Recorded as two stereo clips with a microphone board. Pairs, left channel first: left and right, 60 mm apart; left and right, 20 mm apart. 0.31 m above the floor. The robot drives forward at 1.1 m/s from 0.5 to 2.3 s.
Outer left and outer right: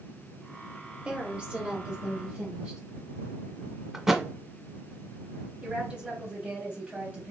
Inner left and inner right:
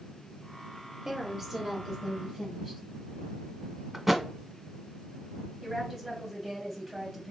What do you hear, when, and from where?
1.1 s a woman speaking: 15° right (ahead or behind), 1.4 m
3.9 s a thud: 10° right (ahead or behind), 0.6 m
5.6 s a woman speaking: 15° right (ahead or behind), 2 m